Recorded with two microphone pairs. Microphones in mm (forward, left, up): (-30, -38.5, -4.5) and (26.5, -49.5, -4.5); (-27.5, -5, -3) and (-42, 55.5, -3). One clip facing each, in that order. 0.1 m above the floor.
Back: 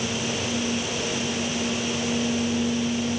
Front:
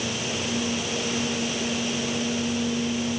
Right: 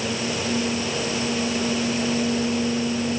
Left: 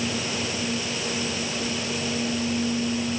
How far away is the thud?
I don't hear a thud.